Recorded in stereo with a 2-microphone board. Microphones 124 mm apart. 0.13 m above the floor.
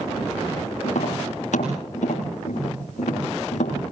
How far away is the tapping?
About 9.5 m.